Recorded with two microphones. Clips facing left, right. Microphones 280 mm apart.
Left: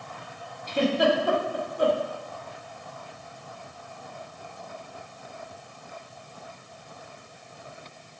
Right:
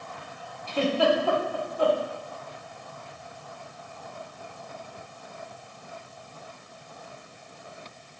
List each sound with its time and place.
0.7 s a giggle: 20° left (ahead or behind), 1.8 m